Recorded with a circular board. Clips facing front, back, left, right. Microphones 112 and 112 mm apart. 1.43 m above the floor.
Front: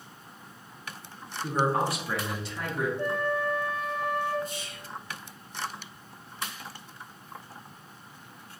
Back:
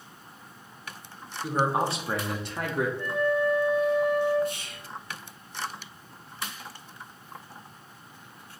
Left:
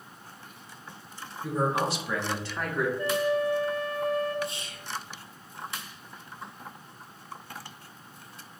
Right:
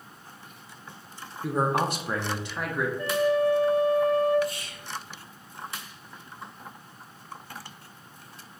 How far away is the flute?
About 1.6 m.